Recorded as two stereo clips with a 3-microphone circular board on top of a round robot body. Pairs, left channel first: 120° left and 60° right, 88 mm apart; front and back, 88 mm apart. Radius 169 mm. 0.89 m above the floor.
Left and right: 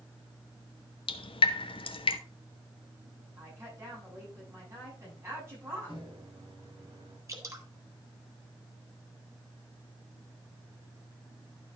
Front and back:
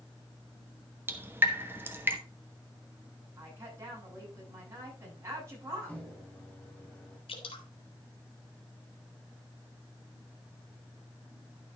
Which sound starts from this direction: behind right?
A woman speaking, at 3.4 s.